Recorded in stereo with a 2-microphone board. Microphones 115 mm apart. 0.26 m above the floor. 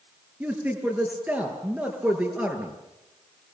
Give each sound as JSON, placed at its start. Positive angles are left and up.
{"t": 0.4, "sound": "a man speaking", "side_deg": -15, "distance_m": 5.0}